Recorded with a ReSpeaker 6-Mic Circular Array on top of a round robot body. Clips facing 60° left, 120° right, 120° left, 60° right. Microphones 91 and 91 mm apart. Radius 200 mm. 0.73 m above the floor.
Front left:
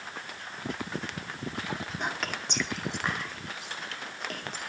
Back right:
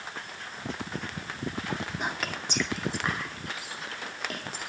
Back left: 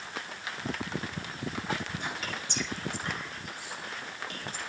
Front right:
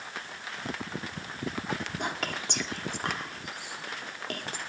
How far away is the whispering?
About 2.5 m.